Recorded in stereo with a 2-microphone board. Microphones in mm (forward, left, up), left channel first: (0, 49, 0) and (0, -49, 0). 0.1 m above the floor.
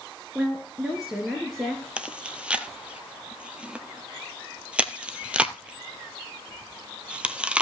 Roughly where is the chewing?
Centre.